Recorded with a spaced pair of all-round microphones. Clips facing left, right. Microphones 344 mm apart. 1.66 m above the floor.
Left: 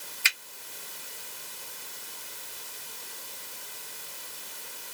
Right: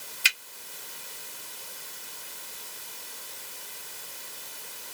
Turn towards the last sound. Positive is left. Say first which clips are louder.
# right 1 dB
turn(degrees=-45)  # may be behind; listen again after turning